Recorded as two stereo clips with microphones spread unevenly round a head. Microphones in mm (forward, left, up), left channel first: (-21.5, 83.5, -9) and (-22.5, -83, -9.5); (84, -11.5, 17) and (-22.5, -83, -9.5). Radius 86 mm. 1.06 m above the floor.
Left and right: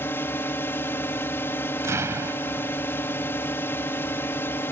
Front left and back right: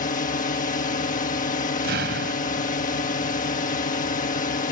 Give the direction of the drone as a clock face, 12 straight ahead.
12 o'clock.